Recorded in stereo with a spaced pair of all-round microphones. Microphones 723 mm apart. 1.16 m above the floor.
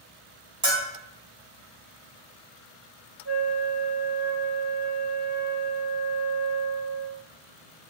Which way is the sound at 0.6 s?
25° right (ahead or behind).